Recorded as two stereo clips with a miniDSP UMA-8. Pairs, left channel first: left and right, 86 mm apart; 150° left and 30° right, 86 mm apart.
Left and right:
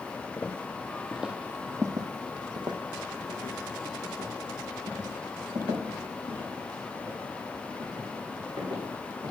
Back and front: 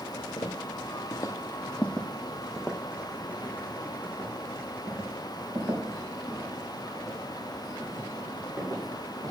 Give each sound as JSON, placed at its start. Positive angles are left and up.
{"t": 0.4, "sound": "footsteps", "azimuth_deg": 155, "distance_m": 1.2}